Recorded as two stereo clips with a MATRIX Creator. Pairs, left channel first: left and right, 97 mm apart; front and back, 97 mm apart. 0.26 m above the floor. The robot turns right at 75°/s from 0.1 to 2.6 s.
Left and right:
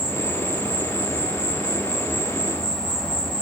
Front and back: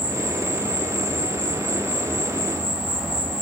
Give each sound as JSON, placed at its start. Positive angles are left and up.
{"t": 0.0, "sound": "an insect", "azimuth_deg": -100, "distance_m": 1.8}